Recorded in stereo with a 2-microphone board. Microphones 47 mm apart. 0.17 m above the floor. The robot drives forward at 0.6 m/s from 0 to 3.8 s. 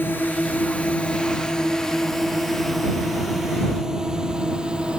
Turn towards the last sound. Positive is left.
turn(degrees=-20)  # may be behind; listen again after turning